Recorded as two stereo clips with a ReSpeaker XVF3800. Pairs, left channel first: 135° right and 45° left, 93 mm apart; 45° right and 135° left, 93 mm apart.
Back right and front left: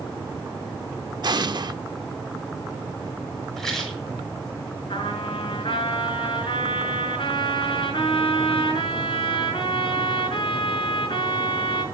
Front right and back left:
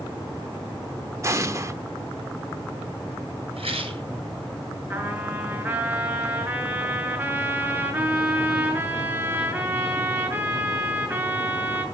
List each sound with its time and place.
1.2 s an explosion: 80° left, 0.9 m
3.6 s a rattle: 140° left, 7.5 m
4.9 s a trumpet: 160° right, 4.5 m